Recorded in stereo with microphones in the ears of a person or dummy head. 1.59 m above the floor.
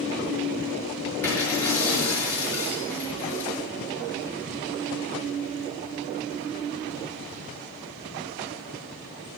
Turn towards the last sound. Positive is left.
turn(degrees=5)  # may be behind; listen again after turning